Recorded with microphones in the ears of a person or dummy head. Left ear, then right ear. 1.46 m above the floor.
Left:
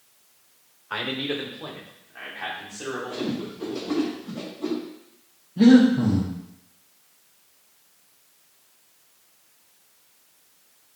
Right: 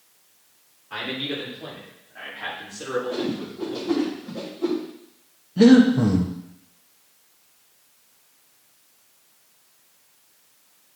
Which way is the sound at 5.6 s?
80° right.